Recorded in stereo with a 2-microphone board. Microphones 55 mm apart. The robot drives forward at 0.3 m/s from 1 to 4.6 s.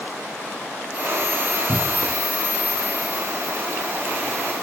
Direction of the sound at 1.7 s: 30° right (ahead or behind).